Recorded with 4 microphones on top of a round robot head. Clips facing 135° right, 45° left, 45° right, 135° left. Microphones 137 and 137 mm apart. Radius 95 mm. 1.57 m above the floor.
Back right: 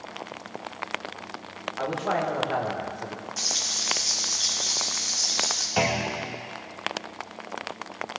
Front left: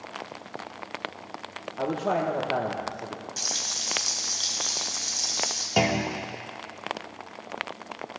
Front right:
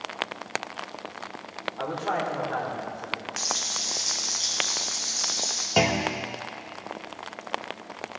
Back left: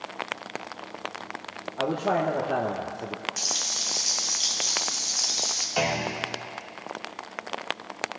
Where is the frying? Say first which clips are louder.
Back right 1 dB, front right 3 dB; 75° left, 3 m.